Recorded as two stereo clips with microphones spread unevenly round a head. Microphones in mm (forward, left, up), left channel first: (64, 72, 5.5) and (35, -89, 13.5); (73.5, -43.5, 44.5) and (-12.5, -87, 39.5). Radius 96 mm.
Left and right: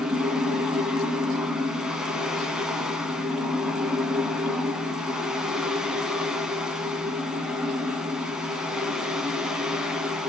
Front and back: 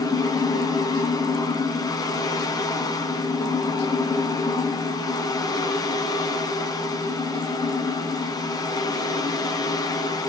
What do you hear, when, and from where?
0.0 s a fan: 15° right, 1.5 m